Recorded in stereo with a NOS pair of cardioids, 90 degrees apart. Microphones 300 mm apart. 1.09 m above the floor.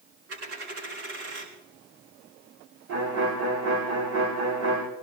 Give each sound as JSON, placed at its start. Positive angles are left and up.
{"t": 0.3, "sound": "a dropped coin", "azimuth_deg": -60, "distance_m": 6.0}
{"t": 2.9, "sound": "a violin", "azimuth_deg": -70, "distance_m": 8.5}